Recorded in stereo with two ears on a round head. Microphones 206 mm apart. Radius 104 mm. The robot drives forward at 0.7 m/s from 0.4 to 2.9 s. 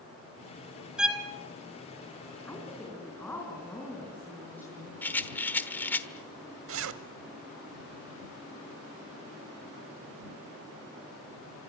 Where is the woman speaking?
10° left (ahead or behind), 4.5 m.